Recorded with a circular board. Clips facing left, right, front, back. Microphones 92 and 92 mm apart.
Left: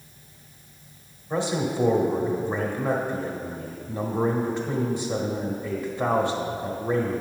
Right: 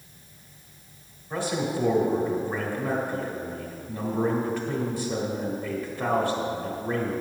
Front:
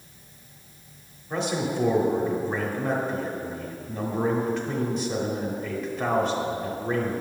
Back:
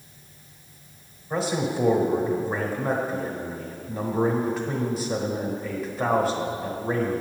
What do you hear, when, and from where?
1.3 s a man speaking: 110° left, 1.2 m